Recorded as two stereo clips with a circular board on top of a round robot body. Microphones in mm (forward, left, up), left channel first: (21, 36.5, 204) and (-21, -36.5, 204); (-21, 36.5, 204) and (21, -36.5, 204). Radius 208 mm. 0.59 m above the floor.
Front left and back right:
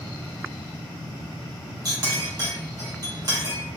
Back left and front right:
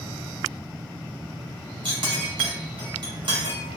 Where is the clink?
80° right, 1.8 m.